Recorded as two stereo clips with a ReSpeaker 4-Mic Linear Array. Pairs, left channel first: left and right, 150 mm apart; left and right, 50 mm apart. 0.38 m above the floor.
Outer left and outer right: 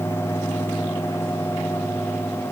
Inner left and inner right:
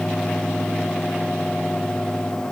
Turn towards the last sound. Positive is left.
No sound to turn to.